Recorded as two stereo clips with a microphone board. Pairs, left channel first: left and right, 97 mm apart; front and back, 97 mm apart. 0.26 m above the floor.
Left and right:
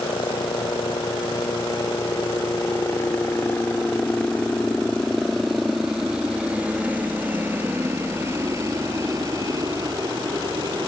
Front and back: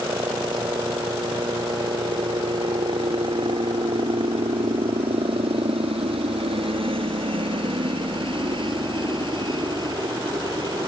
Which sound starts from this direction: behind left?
A helicopter, at 0.0 s.